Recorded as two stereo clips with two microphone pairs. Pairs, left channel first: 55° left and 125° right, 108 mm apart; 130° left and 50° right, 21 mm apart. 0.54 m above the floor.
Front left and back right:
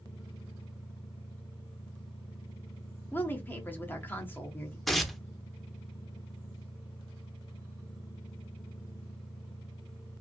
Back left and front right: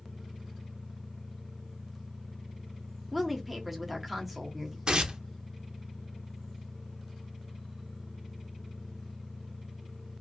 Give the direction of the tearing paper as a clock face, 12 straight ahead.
1 o'clock.